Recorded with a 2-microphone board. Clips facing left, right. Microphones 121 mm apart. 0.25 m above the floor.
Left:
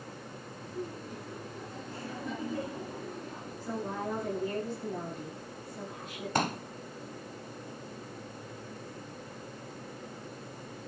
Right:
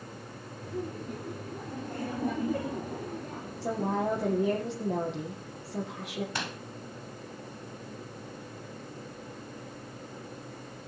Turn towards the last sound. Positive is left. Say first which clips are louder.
# left 7 dB
turn(degrees=40)  # may be behind; listen again after turning